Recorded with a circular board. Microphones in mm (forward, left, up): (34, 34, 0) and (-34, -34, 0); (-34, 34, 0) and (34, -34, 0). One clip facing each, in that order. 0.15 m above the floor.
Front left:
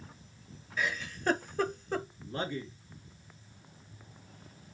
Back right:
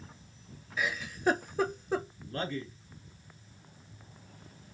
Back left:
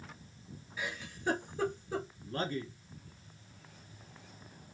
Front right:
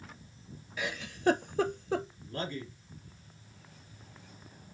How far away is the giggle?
About 0.5 m.